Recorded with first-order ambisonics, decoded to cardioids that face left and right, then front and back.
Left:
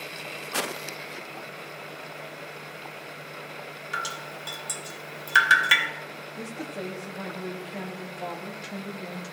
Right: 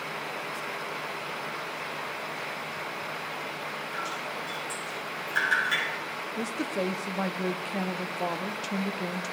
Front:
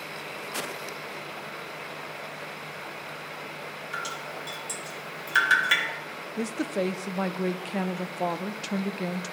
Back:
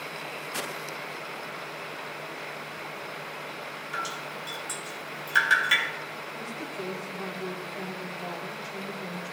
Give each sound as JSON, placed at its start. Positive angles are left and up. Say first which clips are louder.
{"t": 3.9, "sound": "dripping", "louder": "left 5 dB, back 1 dB", "azimuth_deg": 85, "distance_m": 1.2}
{"t": 6.4, "sound": "a woman speaking", "louder": "right 5 dB, front 11 dB", "azimuth_deg": -20, "distance_m": 0.5}